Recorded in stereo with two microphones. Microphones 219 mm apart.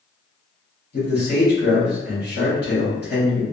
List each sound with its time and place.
0.9 s a man speaking: 45° left (ahead or behind), 1.8 m